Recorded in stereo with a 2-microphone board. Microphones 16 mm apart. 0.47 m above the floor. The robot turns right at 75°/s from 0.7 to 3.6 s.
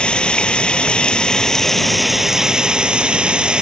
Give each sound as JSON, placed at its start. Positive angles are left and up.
{"t": 0.0, "sound": "running water", "azimuth_deg": 85}